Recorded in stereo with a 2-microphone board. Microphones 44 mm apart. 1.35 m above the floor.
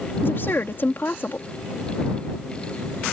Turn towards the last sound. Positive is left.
turn(degrees=55)  # may be behind; listen again after turning